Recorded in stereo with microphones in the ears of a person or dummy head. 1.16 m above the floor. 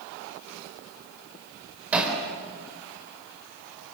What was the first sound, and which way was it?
Hammering, centre (ahead or behind).